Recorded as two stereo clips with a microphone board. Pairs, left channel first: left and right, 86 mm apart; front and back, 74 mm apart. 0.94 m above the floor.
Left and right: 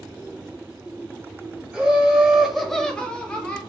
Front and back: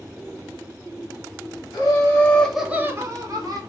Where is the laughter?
15° right, 0.8 m; by 3.6 s 165° left, 0.9 m.